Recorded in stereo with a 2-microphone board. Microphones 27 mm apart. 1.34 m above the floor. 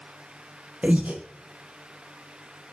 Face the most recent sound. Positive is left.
turn(degrees=-65)  # may be behind; listen again after turning